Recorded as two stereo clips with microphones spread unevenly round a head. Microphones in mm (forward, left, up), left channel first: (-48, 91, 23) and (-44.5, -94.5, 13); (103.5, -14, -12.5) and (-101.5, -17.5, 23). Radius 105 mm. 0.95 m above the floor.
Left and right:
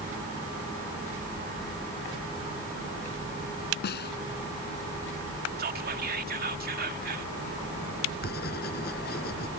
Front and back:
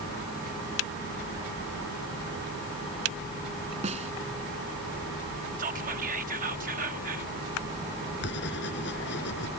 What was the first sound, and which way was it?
A snare drum, 120° left.